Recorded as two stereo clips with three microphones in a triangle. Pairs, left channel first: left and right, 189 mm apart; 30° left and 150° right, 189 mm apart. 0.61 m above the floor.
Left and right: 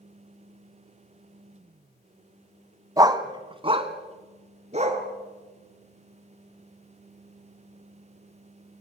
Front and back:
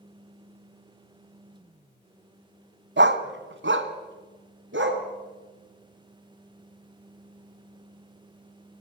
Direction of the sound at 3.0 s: 160° right.